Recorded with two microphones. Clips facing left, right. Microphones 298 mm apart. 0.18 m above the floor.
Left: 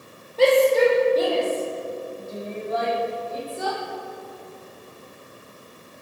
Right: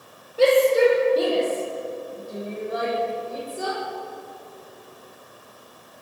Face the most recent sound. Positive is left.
turn(degrees=-20)  # may be behind; listen again after turning